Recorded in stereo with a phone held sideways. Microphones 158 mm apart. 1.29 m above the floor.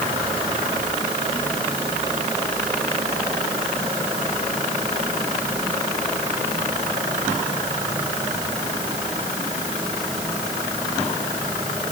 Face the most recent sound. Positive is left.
No sound to turn to.